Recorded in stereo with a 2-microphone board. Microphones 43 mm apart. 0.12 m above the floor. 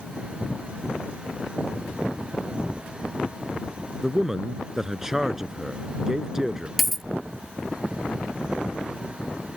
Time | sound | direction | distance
4.0 | a man speaking | 10° right (ahead or behind) | ?
6.8 | a dropped coin | centre (ahead or behind) | ?